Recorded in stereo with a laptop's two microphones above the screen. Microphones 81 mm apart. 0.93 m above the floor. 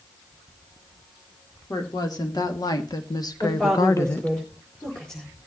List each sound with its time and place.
1.7 s a woman speaking: 55° left (ahead or behind), 2.5 m; by 4.3 s 15° left (ahead or behind), 0.6 m
3.4 s a woman speaking: 10° left (ahead or behind), 4.5 m